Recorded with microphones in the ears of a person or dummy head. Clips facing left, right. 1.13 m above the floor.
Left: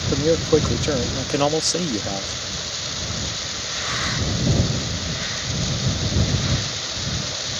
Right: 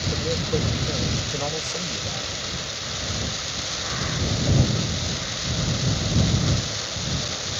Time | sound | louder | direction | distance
0.1 | a man speaking | left 10 dB | 70° left (ahead or behind) | ?